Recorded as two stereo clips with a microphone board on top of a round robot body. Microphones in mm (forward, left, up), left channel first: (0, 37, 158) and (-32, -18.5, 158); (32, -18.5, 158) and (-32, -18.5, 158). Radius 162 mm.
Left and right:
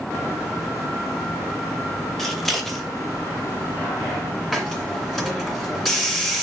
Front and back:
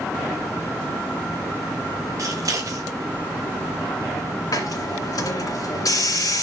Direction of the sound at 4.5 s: 30° right.